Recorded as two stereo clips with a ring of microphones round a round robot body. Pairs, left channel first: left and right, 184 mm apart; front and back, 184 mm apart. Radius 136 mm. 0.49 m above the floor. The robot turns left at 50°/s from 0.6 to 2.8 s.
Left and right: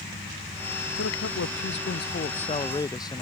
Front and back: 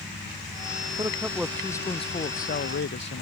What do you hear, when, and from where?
1.0 s a man speaking: 110° left; by 3.2 s 20° left